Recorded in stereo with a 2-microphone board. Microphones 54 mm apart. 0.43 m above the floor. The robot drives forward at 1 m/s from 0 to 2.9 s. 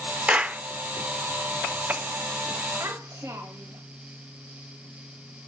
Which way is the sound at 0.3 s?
25° right (ahead or behind).